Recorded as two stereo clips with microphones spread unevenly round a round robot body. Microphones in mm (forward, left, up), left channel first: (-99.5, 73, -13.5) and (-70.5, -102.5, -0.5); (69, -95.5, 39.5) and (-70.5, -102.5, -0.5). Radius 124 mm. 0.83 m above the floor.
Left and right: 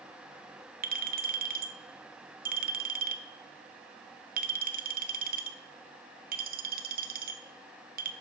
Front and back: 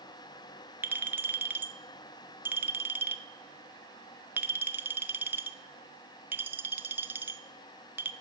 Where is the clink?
115° right, 0.6 m.